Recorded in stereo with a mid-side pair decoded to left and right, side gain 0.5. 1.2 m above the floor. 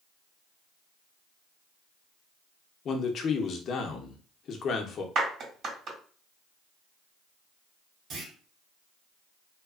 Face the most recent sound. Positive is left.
turn(degrees=-55)